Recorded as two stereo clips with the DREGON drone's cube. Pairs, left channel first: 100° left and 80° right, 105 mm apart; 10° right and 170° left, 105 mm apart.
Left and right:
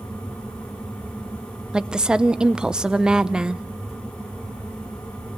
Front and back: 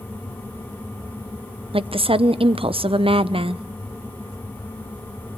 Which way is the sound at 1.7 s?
160° right.